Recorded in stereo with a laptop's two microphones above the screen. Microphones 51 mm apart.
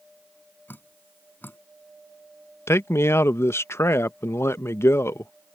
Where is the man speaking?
60° left (ahead or behind).